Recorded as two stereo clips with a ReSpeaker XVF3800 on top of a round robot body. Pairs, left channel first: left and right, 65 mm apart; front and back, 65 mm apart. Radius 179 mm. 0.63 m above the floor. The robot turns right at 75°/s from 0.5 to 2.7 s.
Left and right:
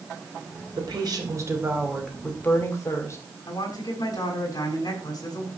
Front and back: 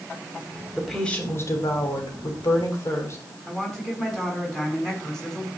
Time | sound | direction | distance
0.8 | a woman speaking | 100° right | 5 m
3.5 | a woman speaking | 80° left | 6.5 m